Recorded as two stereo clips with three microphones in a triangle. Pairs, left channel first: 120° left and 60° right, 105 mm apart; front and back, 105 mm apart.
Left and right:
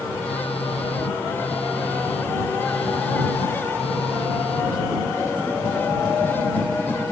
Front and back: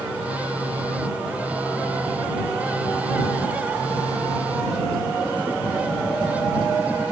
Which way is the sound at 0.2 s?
105° left.